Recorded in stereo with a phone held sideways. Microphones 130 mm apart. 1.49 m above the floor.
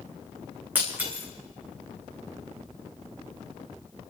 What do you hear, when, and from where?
0.8 s breaking glass: 15° right (ahead or behind), 4 m